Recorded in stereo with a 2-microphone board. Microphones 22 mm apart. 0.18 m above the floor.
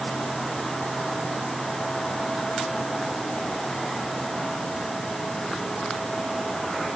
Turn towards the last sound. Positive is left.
No sound to turn to.